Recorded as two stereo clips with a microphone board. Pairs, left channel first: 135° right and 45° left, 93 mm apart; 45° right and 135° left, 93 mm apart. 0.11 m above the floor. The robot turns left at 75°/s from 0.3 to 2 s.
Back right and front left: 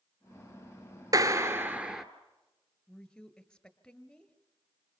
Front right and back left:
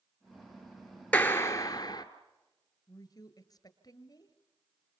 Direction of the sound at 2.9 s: 55° right.